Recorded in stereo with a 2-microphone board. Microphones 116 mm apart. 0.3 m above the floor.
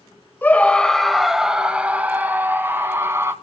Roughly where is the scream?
Centre.